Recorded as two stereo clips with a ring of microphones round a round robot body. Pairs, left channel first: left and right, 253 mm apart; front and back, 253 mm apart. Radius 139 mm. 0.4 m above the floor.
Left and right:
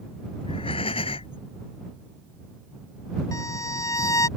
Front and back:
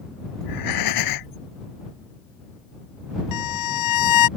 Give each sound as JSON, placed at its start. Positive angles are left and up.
{"t": 0.4, "sound": "breathing", "azimuth_deg": 15}
{"t": 3.3, "sound": "a violin", "azimuth_deg": 10}